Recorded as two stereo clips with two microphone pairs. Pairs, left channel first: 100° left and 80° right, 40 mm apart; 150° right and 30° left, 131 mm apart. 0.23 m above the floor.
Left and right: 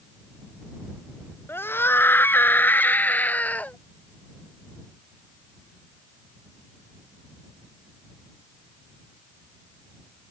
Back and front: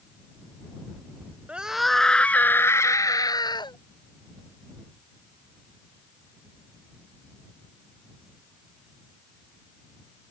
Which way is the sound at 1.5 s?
105° left.